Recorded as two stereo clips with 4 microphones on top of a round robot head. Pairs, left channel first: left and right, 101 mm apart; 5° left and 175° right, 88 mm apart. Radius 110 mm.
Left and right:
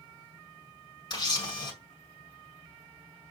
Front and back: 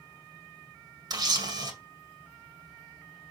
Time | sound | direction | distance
1.1 | a camera shutter | 140° left | 2 m